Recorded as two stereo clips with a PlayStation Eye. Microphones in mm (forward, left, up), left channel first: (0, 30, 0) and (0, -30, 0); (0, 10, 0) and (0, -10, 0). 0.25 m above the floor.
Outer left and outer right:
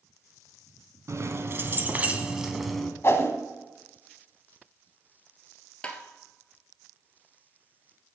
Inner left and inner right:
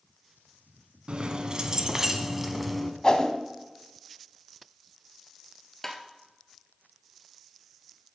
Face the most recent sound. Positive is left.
turn(degrees=20)  # may be behind; listen again after turning